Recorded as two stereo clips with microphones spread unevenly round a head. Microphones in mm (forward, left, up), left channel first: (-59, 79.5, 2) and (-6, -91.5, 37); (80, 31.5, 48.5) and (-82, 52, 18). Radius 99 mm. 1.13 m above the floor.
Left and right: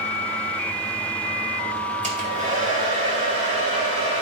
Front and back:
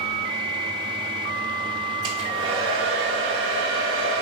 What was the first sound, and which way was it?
A hair dryer, 120° right.